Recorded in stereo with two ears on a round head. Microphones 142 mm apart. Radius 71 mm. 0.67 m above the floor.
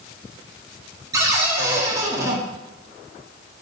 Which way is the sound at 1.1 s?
20° right (ahead or behind).